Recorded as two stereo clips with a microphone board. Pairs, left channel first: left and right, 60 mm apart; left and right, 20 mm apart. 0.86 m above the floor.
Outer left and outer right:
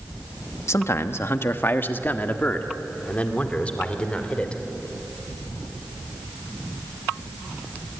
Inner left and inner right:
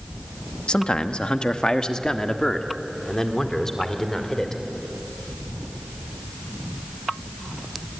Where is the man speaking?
55° left (ahead or behind), 1.1 m; by 4.6 s 20° left (ahead or behind), 3 m.